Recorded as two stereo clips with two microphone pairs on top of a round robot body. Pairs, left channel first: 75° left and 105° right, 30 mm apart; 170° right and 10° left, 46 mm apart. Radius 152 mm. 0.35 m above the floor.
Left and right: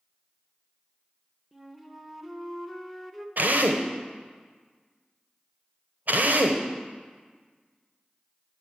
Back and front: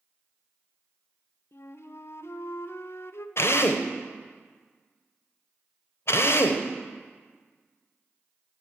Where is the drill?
135° right, 1.0 m.